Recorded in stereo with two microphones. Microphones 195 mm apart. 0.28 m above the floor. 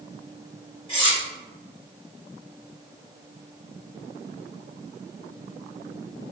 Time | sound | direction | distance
0.9 | cutlery clinking | 30° left (ahead or behind) | 1.6 m